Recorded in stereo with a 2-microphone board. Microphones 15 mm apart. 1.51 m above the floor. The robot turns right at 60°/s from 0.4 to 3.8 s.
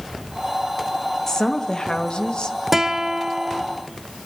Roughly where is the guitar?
Behind.